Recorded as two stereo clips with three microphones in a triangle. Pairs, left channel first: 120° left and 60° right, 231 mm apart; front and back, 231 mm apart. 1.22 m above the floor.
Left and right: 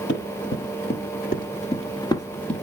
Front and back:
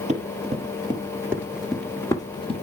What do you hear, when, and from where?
0.1 s running footsteps: 130° left, 2 m; by 2.6 s 35° left, 1.4 m